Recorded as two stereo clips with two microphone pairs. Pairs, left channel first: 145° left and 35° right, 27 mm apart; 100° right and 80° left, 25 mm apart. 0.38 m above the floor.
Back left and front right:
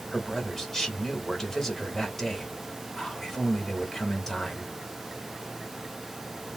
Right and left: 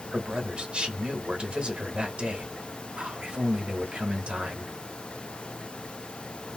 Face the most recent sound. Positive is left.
turn(degrees=80)